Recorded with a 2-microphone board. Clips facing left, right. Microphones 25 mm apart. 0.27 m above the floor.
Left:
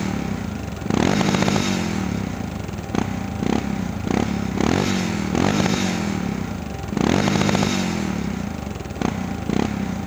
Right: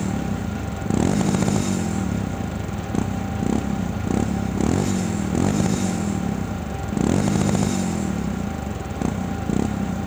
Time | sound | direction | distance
0.0 | a motorcycle | 40° left (ahead or behind) | ?